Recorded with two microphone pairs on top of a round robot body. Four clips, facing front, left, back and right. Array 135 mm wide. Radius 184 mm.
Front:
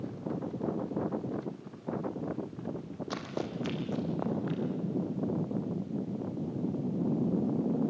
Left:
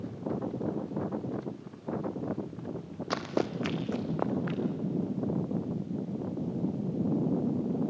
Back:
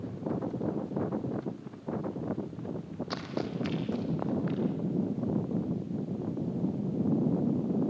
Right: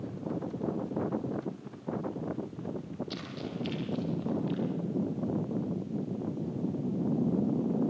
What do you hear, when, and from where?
3.1 s running footsteps: 90° left, 1.0 m; by 4.6 s 85° left, 2.5 m